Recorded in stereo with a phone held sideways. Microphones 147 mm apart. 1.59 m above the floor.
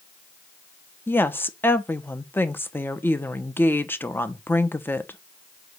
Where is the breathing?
I don't hear breathing.